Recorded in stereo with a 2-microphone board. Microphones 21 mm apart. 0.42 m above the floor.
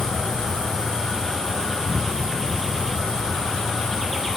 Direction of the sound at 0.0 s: 75° left (ahead or behind).